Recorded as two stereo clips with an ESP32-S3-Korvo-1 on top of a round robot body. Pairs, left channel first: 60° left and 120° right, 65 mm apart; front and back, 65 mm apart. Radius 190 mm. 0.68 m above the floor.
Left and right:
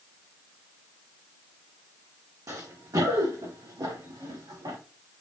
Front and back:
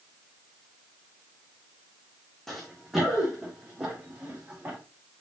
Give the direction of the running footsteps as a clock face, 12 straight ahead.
3 o'clock.